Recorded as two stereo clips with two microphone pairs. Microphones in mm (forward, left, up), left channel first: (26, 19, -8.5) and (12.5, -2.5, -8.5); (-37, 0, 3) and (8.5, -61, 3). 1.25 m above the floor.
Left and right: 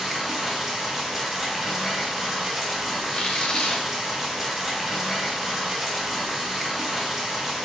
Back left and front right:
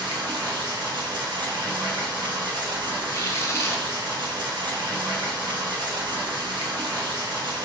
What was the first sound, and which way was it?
Running water, 50° right.